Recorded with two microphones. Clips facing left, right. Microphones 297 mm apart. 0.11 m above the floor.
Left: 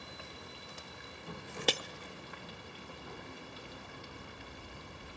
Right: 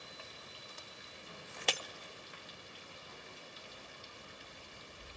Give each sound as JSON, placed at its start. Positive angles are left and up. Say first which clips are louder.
{"t": 0.0, "sound": "running water", "louder": "left 5 dB", "side_deg": 70, "distance_m": 2.0}
{"t": 1.7, "sound": "breaking glass", "louder": "left 6 dB", "side_deg": 50, "distance_m": 0.7}